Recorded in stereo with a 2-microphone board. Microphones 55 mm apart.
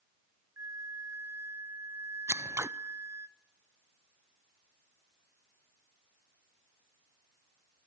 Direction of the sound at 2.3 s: 60° right (ahead or behind).